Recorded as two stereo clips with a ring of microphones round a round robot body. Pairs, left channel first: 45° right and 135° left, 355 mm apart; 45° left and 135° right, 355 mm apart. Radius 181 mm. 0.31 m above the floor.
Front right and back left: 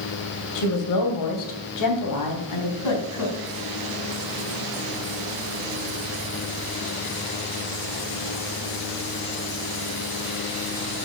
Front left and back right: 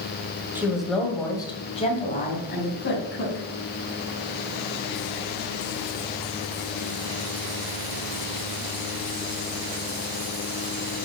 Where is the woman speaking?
55° right, 2.5 m; by 3.5 s 10° right, 3.5 m.